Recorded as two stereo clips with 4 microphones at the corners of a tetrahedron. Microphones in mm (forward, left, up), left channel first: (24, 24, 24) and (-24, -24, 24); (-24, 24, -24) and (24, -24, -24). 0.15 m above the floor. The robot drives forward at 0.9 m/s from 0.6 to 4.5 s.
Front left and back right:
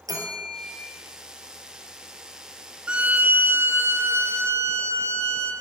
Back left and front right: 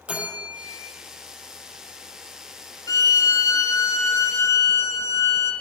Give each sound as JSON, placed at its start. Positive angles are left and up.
{"t": 0.1, "sound": "a bell", "azimuth_deg": -115, "distance_m": 3.5}
{"t": 2.9, "sound": "a violin", "azimuth_deg": 150, "distance_m": 0.5}